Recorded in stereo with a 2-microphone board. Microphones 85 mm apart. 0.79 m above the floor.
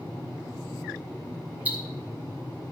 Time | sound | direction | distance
1.6 | ticking | 20° right (ahead or behind) | 2.5 m